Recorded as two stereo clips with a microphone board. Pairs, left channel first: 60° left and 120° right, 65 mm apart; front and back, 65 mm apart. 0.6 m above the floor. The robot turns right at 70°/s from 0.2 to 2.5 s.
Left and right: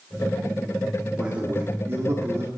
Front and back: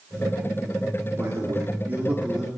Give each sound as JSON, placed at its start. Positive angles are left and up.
{"t": 1.2, "sound": "a man speaking", "azimuth_deg": 170, "distance_m": 1.3}